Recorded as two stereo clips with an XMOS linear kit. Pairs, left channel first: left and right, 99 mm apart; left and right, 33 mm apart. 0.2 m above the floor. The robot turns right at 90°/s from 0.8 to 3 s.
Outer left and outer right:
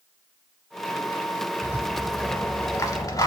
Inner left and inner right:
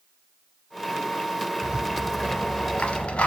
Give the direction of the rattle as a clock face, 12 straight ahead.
1 o'clock.